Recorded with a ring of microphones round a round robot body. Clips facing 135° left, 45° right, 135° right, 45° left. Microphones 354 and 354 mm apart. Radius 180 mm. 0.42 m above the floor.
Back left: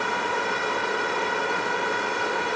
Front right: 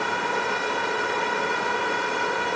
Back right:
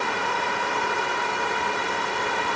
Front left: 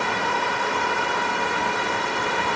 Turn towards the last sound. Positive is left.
No sound to turn to.